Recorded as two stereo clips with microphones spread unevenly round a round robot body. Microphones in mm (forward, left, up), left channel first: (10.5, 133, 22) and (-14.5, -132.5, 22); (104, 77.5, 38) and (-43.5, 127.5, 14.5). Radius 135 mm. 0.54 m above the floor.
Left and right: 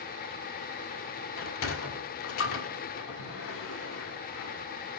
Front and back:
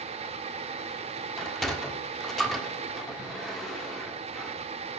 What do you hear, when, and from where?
1.4 s a sliding door: 75° left, 1.5 m